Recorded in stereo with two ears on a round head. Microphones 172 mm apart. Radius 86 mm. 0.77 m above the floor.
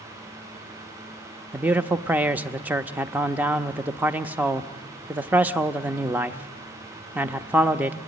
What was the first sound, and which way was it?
A man speaking, 10° right (ahead or behind).